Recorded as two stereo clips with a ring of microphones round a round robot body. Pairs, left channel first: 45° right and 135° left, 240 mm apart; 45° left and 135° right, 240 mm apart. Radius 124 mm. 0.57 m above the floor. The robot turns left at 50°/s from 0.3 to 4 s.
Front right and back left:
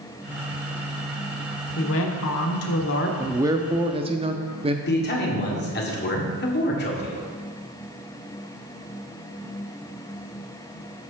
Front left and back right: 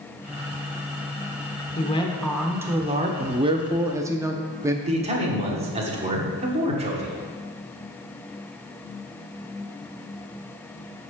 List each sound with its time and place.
1.8 s a woman speaking: 15° right, 1.2 m; by 3.1 s 80° right, 1.2 m
3.2 s a man speaking: 155° right, 0.6 m; by 4.8 s 165° left, 0.6 m
4.9 s a man speaking: 75° right, 1.7 m